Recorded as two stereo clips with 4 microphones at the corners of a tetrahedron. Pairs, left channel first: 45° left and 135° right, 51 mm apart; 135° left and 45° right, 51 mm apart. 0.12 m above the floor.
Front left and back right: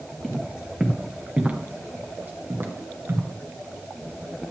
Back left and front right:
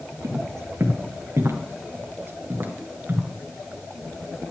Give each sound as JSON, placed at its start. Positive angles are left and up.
{"t": 0.2, "sound": "footsteps", "azimuth_deg": -50, "distance_m": 2.0}